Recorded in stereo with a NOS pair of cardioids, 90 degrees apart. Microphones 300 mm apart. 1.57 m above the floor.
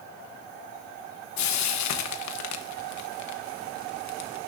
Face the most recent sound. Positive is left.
turn(degrees=70)